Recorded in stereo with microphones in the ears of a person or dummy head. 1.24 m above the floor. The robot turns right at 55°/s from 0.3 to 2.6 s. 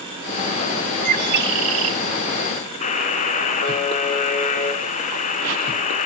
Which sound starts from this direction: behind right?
A bird, at 1.1 s.